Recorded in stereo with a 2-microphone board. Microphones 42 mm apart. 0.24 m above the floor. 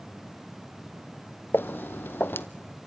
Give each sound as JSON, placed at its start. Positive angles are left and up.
{"t": 1.5, "sound": "footsteps", "side_deg": 60, "distance_m": 0.6}